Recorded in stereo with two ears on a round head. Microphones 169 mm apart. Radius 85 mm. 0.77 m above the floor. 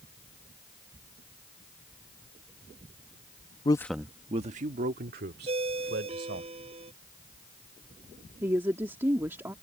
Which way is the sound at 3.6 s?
25° left (ahead or behind).